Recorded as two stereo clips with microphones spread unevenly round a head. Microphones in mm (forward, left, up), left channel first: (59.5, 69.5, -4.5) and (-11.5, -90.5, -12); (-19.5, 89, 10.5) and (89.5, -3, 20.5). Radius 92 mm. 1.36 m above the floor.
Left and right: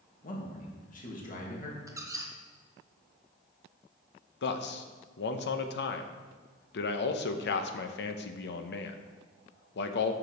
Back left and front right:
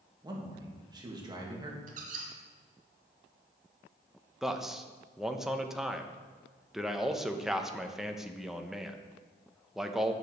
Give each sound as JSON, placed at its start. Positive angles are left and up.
{"t": 0.2, "sound": "a man speaking", "azimuth_deg": 20, "distance_m": 2.5}
{"t": 1.9, "sound": "a squeak", "azimuth_deg": -40, "distance_m": 2.0}
{"t": 4.4, "sound": "a man speaking", "azimuth_deg": 45, "distance_m": 0.9}